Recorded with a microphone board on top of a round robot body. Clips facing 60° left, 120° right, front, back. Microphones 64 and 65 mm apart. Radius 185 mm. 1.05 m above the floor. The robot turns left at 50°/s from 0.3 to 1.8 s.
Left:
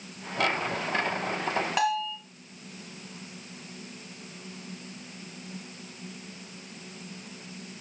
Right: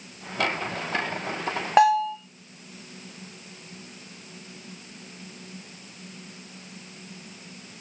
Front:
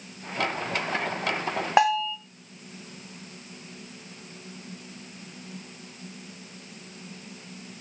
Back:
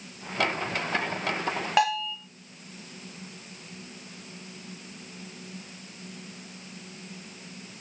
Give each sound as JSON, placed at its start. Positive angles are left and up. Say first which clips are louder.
{"t": 1.8, "sound": "a bell", "louder": "right 13 dB, front 4 dB", "azimuth_deg": -65, "distance_m": 1.4}